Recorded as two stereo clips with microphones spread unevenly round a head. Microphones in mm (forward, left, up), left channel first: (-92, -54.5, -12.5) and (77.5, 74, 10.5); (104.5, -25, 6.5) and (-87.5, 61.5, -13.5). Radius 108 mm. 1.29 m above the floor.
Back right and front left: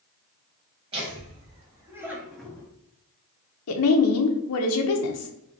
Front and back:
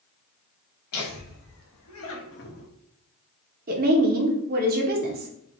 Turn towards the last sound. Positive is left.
turn(degrees=-155)